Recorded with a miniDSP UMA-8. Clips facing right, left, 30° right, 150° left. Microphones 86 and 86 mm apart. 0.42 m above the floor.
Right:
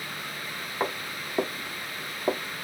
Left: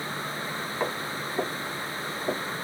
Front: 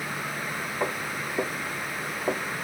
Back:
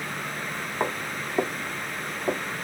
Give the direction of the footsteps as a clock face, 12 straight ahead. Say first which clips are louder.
Right 1 dB, back 2 dB; 5 o'clock.